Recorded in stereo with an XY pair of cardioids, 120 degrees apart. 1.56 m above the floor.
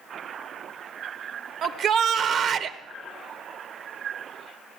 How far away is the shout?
About 1.3 m.